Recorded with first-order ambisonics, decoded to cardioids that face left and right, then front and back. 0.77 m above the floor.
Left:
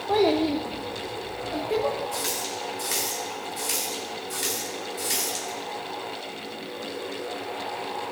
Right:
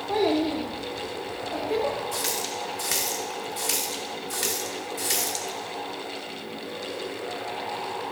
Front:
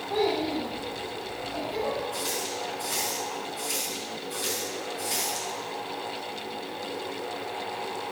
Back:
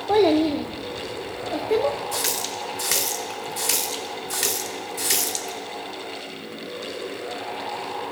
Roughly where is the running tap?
Behind.